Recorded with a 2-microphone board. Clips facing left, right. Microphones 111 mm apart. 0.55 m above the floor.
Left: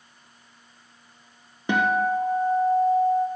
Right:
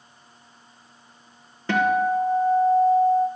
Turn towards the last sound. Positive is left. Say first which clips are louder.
# right 2 dB
turn(degrees=15)  # may be behind; listen again after turning